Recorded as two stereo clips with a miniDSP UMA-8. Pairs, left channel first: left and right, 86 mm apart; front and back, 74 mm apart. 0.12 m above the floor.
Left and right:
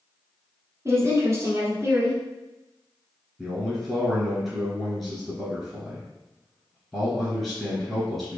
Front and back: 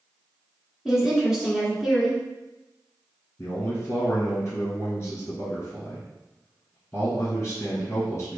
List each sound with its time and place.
0.8 s a woman speaking: 105° right, 1.2 m
3.4 s a man speaking: 10° left, 1.5 m